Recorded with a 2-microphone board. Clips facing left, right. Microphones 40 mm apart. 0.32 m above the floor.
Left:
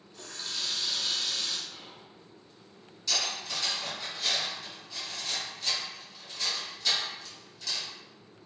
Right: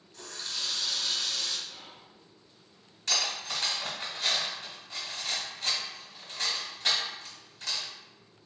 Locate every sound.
0.1 s a running tap: 10° left (ahead or behind), 0.6 m
1.7 s whispering: 10° right (ahead or behind), 1.0 m
3.1 s cutlery clinking: 50° right (ahead or behind), 1.0 m